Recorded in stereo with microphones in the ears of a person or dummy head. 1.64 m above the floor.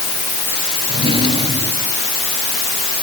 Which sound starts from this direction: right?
A drawer, at 0.9 s.